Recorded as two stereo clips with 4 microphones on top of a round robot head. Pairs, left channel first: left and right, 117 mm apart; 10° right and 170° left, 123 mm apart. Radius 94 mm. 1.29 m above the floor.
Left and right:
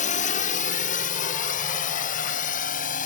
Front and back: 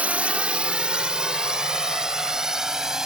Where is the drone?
95° left; by 3.1 s 85° left.